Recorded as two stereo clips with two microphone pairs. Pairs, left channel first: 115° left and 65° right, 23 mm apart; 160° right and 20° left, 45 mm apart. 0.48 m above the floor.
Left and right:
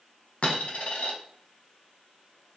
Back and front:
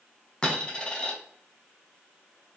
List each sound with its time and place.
0.4 s a dropped coin: 135° left, 0.7 m